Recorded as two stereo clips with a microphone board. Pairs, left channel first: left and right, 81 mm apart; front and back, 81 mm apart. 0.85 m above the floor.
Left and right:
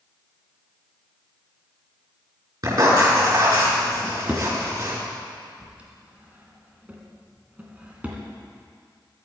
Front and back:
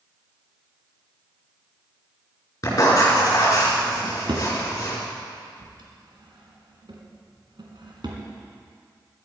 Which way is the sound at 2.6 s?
50° right.